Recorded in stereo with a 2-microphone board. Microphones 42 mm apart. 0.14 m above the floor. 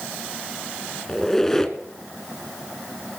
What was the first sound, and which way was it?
A squeak, 10° left (ahead or behind).